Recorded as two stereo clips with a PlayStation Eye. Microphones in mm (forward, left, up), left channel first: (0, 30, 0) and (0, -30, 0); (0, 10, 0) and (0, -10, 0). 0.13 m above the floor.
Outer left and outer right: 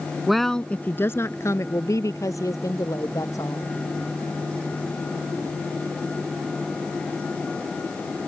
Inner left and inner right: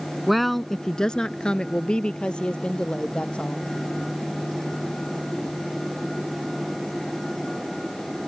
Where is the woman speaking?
5° right (ahead or behind); by 3.7 s 65° left (ahead or behind).